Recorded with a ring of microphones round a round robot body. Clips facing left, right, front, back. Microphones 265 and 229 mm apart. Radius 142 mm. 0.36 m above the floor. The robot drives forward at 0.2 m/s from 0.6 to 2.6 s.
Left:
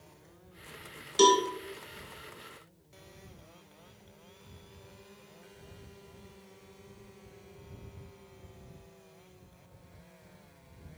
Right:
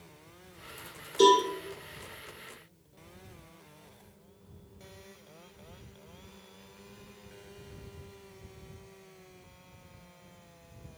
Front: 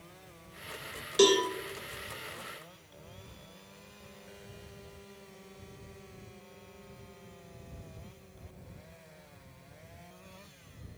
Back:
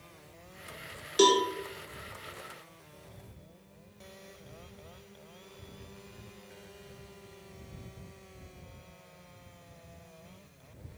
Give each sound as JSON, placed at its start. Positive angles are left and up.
{"t": 1.2, "sound": "a cowbell", "azimuth_deg": 95, "distance_m": 0.7}